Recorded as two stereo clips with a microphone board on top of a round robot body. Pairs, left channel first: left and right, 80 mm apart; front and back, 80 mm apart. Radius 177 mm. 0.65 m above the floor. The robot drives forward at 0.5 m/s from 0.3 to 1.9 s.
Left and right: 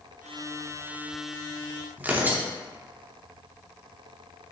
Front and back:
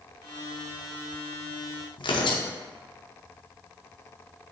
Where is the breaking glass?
No breaking glass in this recording.